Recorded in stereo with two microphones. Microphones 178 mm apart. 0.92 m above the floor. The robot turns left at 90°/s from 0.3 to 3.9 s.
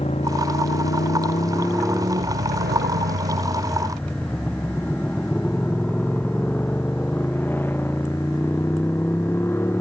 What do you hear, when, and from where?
0.0 s a motorcycle: 40° left (ahead or behind); by 9.8 s 15° left (ahead or behind)